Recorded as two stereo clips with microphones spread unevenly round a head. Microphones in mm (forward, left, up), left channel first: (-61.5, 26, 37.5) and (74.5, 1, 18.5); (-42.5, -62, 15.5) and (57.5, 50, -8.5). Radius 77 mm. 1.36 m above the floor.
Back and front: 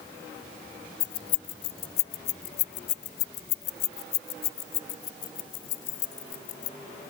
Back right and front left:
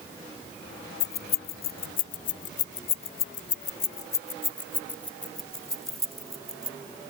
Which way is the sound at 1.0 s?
150° right.